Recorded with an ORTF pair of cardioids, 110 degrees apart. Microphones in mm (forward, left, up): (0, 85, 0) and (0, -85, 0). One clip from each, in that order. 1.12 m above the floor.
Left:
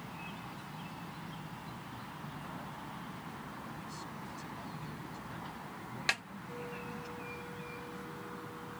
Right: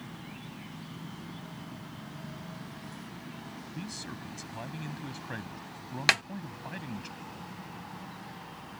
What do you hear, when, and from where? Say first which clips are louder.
3.7 s a man speaking: right 3 dB; 60° right
6.1 s a snare drum: right 9 dB; 45° right